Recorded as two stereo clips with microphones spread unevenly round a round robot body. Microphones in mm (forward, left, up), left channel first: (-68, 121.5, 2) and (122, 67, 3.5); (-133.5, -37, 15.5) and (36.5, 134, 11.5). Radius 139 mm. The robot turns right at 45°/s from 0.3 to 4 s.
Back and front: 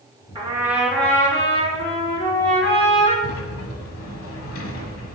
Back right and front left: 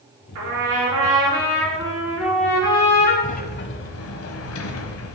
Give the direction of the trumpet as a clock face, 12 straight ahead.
10 o'clock.